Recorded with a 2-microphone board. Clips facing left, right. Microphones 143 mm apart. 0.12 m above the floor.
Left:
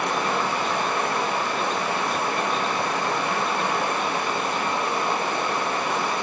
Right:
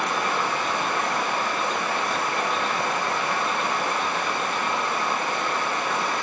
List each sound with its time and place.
0.0 s running water: 20° left (ahead or behind), 4.5 m